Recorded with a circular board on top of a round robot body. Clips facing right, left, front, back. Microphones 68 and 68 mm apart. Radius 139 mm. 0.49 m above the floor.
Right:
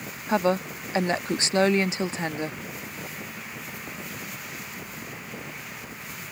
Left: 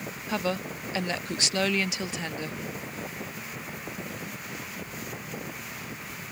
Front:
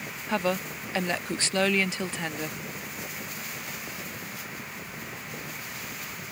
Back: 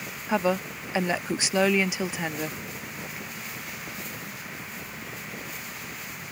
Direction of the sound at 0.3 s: 110° right.